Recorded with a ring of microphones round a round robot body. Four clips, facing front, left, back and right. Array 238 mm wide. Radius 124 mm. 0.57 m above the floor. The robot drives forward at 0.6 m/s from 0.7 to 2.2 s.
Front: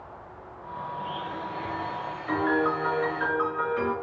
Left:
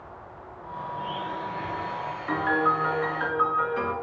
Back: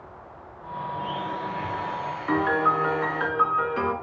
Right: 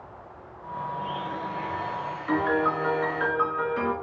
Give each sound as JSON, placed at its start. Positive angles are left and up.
{"t": 0.9, "sound": "a blender", "azimuth_deg": 180, "distance_m": 7.5}
{"t": 2.3, "sound": "a piano", "azimuth_deg": -175, "distance_m": 4.0}